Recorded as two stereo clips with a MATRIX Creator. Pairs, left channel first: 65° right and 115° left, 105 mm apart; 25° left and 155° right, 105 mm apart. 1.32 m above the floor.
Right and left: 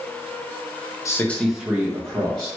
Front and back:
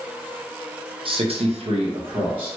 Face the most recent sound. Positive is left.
turn(degrees=160)